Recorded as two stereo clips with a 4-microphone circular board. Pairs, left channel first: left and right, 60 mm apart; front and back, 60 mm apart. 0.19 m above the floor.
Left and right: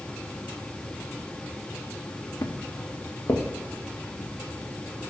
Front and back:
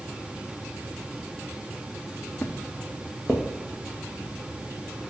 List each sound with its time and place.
2.4 s footsteps: 65° left, 1.4 m; by 5.0 s 110° left, 4 m